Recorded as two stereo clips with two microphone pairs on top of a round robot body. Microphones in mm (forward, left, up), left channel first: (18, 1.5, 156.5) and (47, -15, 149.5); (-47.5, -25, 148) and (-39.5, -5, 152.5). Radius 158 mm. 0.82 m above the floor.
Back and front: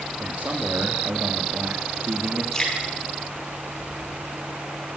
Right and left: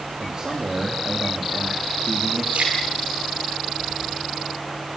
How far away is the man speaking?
About 2.5 m.